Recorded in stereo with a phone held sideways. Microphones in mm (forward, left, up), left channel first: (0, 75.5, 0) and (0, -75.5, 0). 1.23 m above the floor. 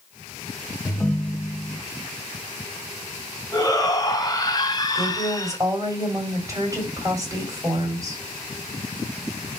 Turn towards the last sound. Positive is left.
turn(degrees=-25)  # may be behind; listen again after turning